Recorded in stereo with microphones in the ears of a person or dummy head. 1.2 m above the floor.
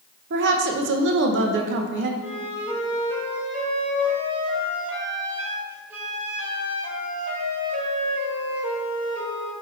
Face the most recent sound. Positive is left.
turn(degrees=-10)  # may be behind; listen again after turning